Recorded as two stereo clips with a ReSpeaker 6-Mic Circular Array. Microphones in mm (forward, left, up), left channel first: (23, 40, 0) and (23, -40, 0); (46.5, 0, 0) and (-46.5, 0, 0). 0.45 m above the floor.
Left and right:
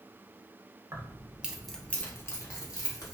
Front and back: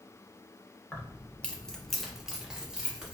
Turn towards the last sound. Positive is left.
turn(degrees=100)